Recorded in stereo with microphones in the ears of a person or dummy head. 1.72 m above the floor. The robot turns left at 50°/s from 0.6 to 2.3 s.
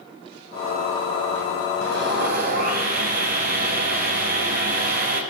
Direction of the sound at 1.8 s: 75° right (ahead or behind).